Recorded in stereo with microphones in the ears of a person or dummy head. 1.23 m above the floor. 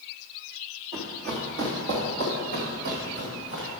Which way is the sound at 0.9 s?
50° right (ahead or behind).